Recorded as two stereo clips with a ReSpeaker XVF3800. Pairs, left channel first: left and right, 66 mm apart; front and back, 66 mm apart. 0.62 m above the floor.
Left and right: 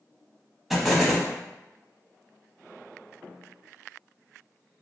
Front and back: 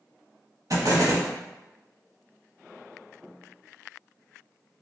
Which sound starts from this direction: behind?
An explosion, at 0.7 s.